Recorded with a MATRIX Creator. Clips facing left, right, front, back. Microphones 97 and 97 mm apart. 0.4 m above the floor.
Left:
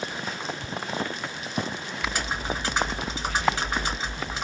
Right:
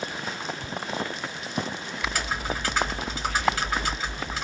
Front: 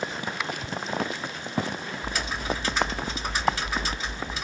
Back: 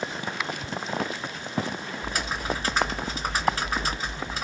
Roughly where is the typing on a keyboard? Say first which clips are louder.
Even, back 1 dB; behind left.